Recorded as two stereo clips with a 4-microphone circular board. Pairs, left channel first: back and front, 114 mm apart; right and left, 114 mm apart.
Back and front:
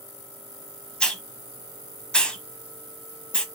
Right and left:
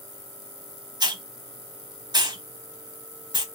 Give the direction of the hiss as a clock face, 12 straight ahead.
9 o'clock.